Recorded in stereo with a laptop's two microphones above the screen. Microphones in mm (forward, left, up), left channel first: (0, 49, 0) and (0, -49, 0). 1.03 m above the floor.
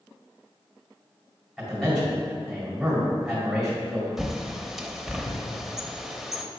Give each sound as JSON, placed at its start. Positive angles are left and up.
{"t": 1.6, "sound": "a man speaking", "side_deg": 0, "distance_m": 2.5}
{"t": 4.2, "sound": "a bird", "side_deg": 0, "distance_m": 0.7}